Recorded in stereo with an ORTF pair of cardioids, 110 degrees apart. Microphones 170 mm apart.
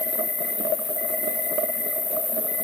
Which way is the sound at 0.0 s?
25° left.